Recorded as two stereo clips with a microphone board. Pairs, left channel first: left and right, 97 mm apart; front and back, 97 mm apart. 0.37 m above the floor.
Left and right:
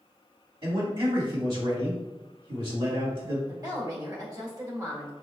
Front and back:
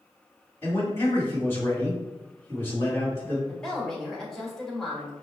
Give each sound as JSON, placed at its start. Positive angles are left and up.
{"t": 0.6, "sound": "a man speaking", "azimuth_deg": -65, "distance_m": 1.8}
{"t": 3.5, "sound": "a woman speaking", "azimuth_deg": -80, "distance_m": 1.2}